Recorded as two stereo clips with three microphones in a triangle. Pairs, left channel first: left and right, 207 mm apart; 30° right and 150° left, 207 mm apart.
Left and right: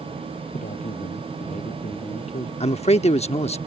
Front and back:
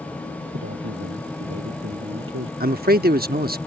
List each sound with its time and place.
0.5 s a man speaking: 145° left; by 2.5 s 150° left
2.6 s a man speaking: 135° left